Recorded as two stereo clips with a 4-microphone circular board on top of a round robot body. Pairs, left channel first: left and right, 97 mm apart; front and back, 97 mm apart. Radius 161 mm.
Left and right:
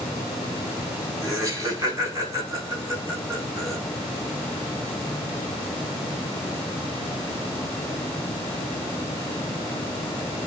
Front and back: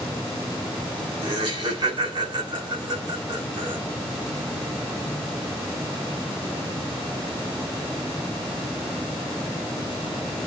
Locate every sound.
1.2 s laughter: 145° right, 5.5 m